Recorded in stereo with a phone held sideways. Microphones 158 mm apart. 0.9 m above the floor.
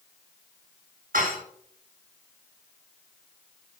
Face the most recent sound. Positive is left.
turn(degrees=-70)  # may be behind; listen again after turning